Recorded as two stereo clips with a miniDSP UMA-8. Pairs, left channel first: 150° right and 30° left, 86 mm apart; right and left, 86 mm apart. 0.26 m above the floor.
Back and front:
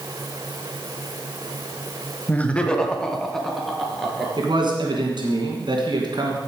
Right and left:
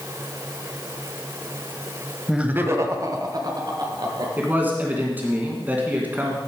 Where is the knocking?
No knocking in this recording.